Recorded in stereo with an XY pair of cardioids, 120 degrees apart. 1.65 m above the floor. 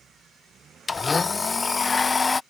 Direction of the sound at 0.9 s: 20° left.